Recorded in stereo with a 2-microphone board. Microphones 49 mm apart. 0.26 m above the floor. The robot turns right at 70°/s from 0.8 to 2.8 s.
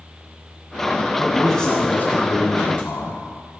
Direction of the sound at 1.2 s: 10° right.